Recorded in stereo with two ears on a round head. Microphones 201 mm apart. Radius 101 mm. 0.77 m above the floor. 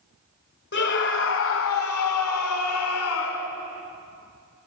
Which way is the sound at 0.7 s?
50° left (ahead or behind).